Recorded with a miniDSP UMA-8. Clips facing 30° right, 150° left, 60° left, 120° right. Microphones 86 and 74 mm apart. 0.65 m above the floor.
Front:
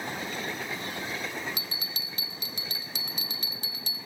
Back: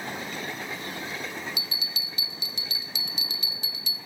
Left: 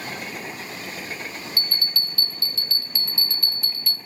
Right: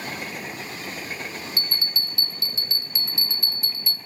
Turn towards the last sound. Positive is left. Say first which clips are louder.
# back 1 dB, left 1 dB
turn(degrees=-55)